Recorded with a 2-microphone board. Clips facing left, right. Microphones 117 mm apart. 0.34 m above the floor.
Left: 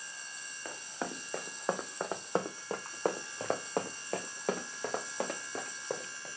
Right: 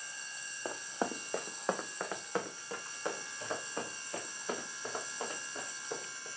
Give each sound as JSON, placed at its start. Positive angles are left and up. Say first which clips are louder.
{"t": 0.7, "sound": "running footsteps", "louder": "right 4 dB", "side_deg": -25, "distance_m": 1.1}